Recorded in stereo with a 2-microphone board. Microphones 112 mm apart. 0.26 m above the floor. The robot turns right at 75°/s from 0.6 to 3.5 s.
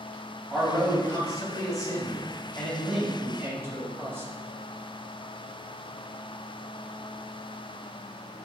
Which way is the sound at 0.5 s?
10° left.